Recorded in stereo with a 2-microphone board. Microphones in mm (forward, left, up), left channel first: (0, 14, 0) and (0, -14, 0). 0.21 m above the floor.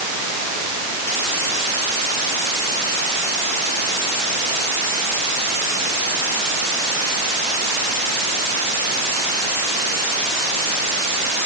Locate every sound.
Only background noise.